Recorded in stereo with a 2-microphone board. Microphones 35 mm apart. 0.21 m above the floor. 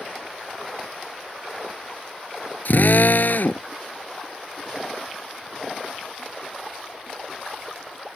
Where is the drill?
65° left (ahead or behind).